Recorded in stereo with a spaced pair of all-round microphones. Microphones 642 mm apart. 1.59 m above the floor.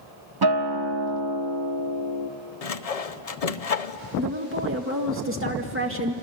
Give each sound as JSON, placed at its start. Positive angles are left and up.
{"t": 0.4, "sound": "a guitar", "side_deg": -35, "distance_m": 1.2}
{"t": 2.6, "sound": "sawing", "side_deg": 65, "distance_m": 0.8}
{"t": 4.2, "sound": "a woman speaking", "side_deg": -20, "distance_m": 1.9}